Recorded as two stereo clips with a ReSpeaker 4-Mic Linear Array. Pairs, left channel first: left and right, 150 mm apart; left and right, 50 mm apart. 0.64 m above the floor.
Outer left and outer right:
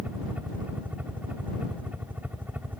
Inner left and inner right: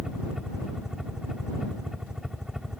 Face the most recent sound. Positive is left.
turn(degrees=-10)  # may be behind; listen again after turning